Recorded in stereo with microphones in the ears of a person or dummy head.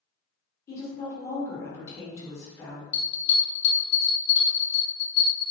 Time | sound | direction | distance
0.7 | a woman speaking | 20° left (ahead or behind) | 1.3 m
2.9 | a bell | 45° left (ahead or behind) | 1.0 m